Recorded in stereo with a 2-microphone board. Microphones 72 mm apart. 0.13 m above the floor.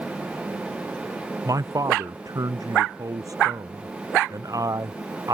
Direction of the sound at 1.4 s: 50° right (ahead or behind).